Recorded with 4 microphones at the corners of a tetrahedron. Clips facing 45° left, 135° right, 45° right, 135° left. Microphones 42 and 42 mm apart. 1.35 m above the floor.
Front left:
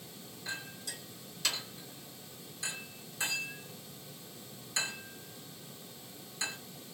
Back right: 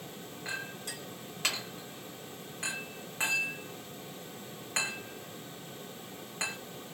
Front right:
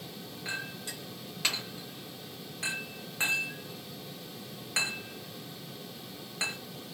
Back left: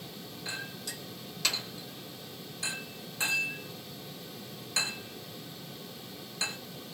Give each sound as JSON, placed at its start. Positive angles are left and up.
{"t": 0.5, "sound": "a clink", "azimuth_deg": -100, "distance_m": 1.5}